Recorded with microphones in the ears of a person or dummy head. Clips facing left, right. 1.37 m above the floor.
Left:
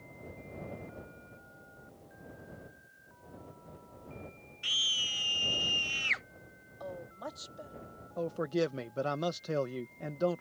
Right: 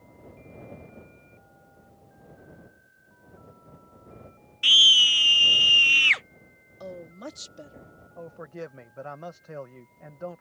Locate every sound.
4.6 s a scream: 65° right (ahead or behind)
6.8 s a woman speaking: 40° right (ahead or behind)
8.2 s a man speaking: 55° left (ahead or behind)